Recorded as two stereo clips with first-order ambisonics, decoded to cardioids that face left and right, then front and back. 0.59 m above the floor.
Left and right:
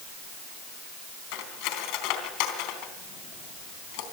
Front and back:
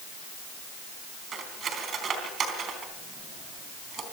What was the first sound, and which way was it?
Cutlery clinking, 115° left.